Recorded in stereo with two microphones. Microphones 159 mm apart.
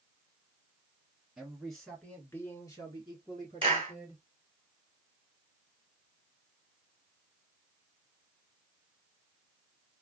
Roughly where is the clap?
Right.